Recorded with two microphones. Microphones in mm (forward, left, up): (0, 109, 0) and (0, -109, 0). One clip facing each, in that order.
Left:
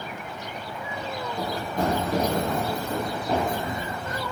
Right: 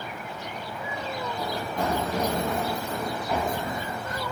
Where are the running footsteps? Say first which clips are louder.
Left 4 dB; 45° left (ahead or behind), 6.5 m; by 4.2 s 30° left (ahead or behind), 6 m.